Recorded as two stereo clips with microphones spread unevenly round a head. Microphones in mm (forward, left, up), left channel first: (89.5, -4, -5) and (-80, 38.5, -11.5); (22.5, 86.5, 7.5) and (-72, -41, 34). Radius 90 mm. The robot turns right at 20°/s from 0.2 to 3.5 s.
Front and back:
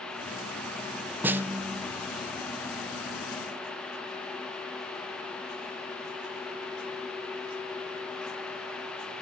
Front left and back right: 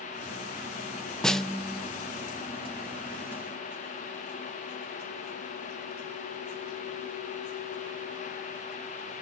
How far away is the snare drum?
About 0.6 m.